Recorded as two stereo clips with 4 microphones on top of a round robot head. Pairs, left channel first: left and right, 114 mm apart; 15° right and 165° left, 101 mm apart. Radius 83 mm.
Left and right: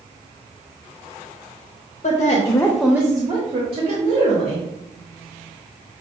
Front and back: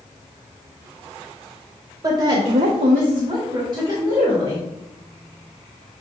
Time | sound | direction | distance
2.0 | a woman speaking | 115° left | 0.8 m